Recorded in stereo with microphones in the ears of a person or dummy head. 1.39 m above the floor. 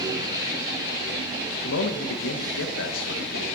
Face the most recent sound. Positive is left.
turn(degrees=80)